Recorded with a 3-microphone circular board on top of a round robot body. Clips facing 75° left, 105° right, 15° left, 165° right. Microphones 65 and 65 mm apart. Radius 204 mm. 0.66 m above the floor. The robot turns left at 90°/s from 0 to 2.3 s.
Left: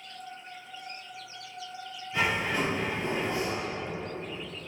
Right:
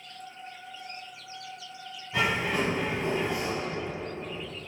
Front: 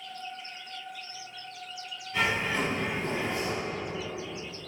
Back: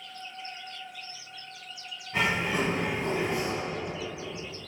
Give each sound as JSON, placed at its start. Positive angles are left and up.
{"t": 2.1, "sound": "a bird", "azimuth_deg": -105, "distance_m": 1.1}